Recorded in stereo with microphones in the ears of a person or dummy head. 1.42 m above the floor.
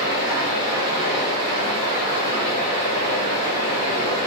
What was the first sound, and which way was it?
Running water, 25° right (ahead or behind).